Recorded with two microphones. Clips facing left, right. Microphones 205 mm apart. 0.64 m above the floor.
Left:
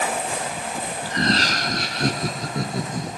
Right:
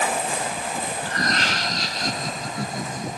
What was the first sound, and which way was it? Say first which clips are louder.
Laughter: left 7 dB; 10° left (ahead or behind).